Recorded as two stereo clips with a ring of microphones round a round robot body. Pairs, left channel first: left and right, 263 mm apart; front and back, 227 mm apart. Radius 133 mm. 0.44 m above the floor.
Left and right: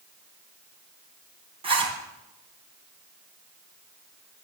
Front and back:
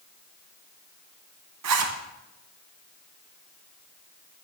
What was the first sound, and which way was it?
A zipper, 160° right.